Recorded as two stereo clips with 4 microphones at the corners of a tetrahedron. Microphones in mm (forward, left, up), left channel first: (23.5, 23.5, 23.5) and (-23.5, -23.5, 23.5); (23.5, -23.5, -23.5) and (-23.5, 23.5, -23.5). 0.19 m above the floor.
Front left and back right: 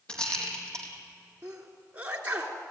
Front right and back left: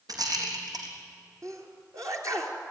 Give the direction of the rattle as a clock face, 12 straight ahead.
8 o'clock.